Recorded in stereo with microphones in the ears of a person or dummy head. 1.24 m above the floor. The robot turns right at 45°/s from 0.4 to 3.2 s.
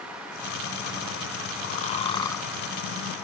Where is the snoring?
135° left; by 2.5 s 170° left.